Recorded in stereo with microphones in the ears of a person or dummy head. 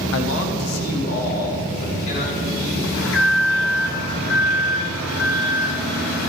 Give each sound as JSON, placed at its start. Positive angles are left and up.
{"t": 0.1, "sound": "a man speaking", "side_deg": 80, "distance_m": 0.9}
{"t": 2.9, "sound": "an alarm", "side_deg": 80, "distance_m": 3.0}